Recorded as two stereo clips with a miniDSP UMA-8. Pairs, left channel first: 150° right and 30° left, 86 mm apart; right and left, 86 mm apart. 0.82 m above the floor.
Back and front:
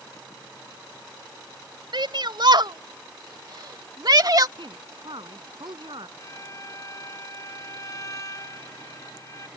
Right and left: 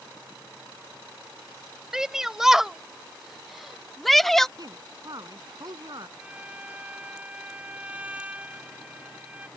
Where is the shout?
5° left; by 4.5 s 5° right.